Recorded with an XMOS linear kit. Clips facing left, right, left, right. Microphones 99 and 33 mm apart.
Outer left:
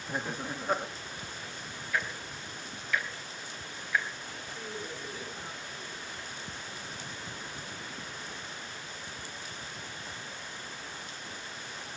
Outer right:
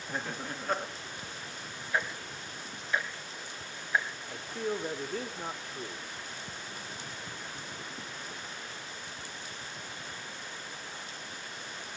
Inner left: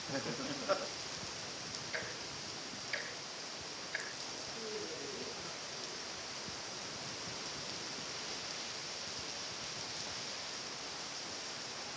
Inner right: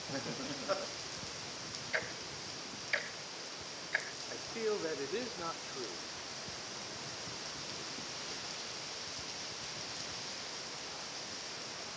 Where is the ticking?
25° right (ahead or behind), 3 m.